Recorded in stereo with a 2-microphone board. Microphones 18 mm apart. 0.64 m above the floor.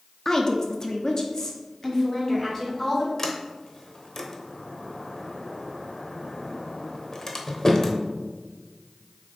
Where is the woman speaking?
25° left (ahead or behind), 0.8 m.